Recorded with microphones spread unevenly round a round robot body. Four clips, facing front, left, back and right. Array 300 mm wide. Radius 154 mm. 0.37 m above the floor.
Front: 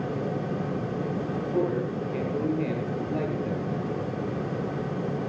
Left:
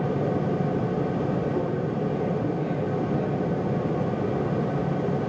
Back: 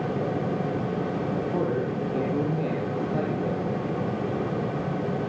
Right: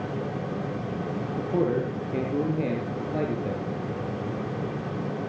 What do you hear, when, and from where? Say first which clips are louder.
1.4 s a man speaking: right 1 dB, front 1 dB; 110° right, 6 m